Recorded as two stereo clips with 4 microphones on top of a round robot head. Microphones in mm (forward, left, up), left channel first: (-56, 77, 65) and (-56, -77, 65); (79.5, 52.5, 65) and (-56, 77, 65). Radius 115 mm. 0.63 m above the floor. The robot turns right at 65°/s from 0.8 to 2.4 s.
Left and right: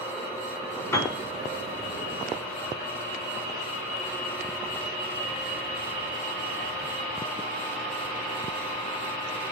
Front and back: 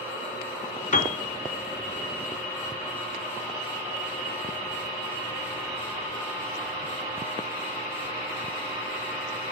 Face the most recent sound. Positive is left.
turn(degrees=110)